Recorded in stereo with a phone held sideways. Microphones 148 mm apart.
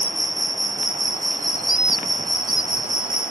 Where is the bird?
85° right.